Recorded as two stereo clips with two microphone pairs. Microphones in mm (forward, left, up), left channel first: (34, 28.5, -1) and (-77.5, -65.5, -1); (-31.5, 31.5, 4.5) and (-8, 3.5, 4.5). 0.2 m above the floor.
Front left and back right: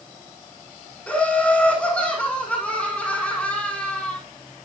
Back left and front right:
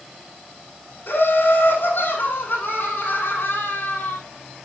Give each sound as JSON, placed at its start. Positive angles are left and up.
{"t": 1.1, "sound": "laughter", "azimuth_deg": 120, "distance_m": 6.5}